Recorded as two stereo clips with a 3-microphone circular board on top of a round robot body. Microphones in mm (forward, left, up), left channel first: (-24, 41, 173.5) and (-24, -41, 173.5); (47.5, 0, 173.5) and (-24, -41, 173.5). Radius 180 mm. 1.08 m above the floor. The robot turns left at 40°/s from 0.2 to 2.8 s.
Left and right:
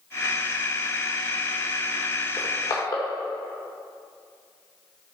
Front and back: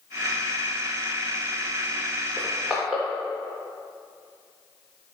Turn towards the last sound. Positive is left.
turn(degrees=125)